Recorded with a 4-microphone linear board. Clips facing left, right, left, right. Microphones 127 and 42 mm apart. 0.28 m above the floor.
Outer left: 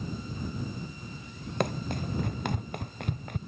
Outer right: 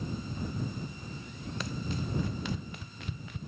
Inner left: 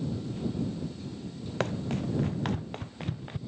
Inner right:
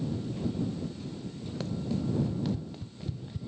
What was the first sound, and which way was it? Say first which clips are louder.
Running footsteps: outer left 6 dB, inner left 2 dB; 55° left (ahead or behind).